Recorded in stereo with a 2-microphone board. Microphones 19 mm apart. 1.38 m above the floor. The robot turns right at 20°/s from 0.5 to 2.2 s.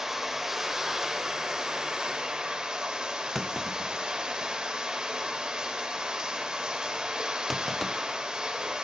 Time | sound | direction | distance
0.0 | running water | 155° right | 2.5 m
3.4 | a clunk | centre (ahead or behind) | 0.8 m